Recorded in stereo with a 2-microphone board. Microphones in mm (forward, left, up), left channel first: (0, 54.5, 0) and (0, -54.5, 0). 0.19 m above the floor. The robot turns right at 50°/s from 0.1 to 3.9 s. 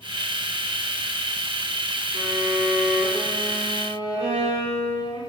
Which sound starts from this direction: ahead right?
A violin, at 2.1 s.